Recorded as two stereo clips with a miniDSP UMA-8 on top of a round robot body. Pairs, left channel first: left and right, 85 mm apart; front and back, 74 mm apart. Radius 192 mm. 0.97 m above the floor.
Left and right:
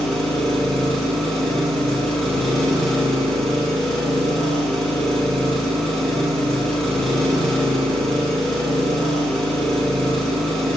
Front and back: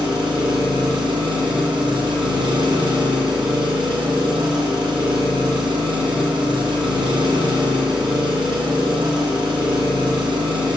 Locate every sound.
0.0 s an engine running: 175° left, 0.9 m